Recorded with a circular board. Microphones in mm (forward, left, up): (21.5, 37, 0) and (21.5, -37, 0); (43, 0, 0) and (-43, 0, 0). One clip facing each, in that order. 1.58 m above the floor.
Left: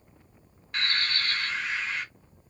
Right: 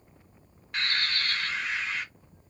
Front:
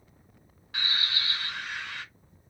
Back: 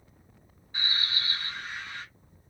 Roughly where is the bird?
Ahead.